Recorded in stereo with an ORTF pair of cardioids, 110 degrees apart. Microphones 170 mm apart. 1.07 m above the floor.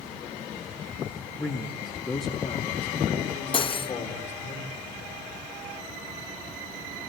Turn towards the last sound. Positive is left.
turn(degrees=30)